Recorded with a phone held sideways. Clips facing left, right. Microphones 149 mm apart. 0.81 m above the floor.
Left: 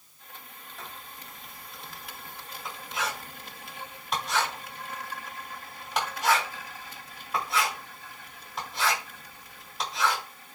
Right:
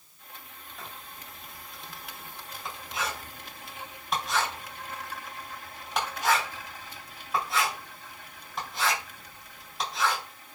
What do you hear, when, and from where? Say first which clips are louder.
0.8 s writing: even; centre (ahead or behind), 3.5 m